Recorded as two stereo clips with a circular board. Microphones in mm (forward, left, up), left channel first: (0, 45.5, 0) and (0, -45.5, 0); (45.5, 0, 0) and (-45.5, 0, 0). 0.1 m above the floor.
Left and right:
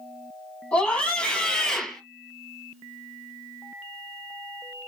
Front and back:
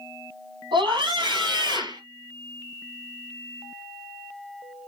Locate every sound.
0.7 s a scream: 160° left, 3.5 m; by 2.0 s 175° left, 2.5 m